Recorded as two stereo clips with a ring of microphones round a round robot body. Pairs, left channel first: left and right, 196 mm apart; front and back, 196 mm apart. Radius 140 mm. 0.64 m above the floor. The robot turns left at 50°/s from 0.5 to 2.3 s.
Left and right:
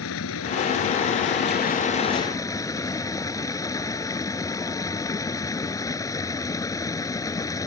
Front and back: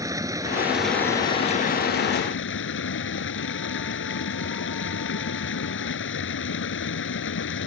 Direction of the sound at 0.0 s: 105° left.